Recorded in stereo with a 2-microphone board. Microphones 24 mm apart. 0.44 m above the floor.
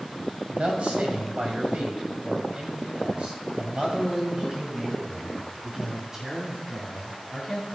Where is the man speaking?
65° right (ahead or behind), 2.5 m; by 7.8 s 15° right (ahead or behind), 4.5 m.